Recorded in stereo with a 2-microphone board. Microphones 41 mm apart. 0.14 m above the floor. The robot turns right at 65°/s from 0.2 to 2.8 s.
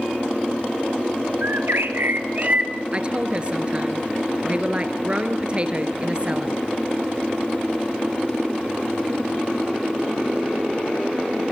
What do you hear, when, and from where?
1.4 s a bird: 110° right, 1.3 m; by 2.7 s 20° right, 1.3 m
2.9 s a woman speaking: 30° right (ahead or behind), 2 m